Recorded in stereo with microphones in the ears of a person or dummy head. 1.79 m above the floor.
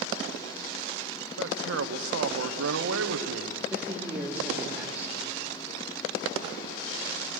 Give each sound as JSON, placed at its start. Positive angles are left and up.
{"t": 1.4, "sound": "a man speaking", "side_deg": -85, "distance_m": 1.4}
{"t": 3.7, "sound": "a man speaking", "side_deg": -10, "distance_m": 4.0}